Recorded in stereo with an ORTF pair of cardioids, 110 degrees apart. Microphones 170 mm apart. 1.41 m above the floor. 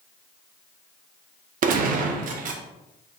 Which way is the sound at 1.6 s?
60° right.